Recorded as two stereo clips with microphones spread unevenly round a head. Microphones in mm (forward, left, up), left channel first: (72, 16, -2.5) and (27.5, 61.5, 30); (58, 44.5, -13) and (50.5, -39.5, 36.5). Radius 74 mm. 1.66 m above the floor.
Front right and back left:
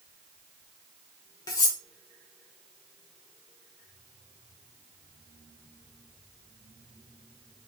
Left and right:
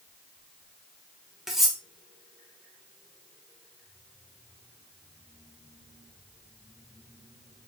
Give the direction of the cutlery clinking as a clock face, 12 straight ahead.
4 o'clock.